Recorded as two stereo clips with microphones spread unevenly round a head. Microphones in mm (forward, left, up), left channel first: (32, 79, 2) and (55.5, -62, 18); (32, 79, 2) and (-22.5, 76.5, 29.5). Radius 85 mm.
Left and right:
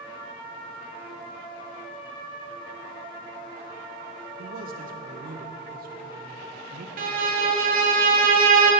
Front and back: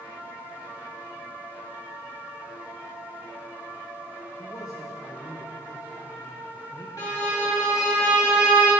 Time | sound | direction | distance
4.4 | a man speaking | 60° right | 0.7 m
7.0 | a violin | 75° right | 1.0 m